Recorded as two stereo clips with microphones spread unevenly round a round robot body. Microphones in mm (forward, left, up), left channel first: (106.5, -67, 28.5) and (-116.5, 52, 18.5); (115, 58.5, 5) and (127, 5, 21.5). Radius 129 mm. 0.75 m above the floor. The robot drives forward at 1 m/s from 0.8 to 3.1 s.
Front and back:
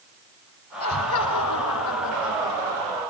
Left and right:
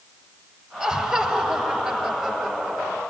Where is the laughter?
5° right, 5 m.